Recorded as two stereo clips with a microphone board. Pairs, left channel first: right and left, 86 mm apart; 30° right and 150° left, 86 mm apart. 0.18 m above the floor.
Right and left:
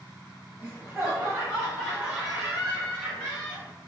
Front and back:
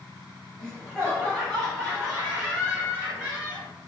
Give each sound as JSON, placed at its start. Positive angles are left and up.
{"t": 0.6, "sound": "laughter", "azimuth_deg": 50, "distance_m": 2.0}